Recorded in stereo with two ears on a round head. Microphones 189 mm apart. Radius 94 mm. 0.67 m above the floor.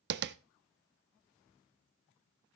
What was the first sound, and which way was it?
Tapping, 50° right (ahead or behind).